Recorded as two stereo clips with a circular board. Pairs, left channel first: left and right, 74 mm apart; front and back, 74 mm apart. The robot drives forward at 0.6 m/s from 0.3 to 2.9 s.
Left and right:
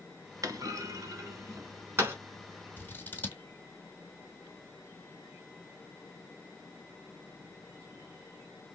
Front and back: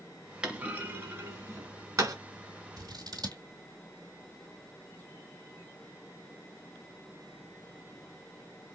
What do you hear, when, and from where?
0.4 s a clunk: 105° right, 1.2 m; by 2.1 s 145° right, 1.8 m
2.8 s scissors: 155° left, 1.6 m